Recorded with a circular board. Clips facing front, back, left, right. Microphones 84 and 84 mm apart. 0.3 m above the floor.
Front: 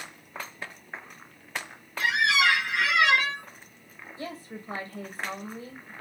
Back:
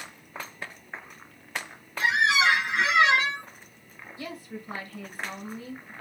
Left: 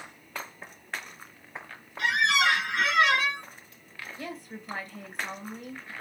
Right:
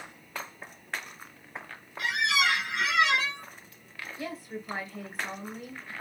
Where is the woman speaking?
10° right, 1.2 m.